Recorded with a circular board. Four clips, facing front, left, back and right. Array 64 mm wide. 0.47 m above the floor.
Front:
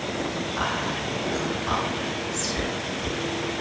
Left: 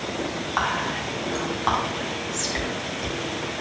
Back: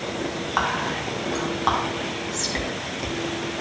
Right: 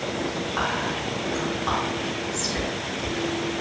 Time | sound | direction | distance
0.6 | whispering | 150° left | 4.5 m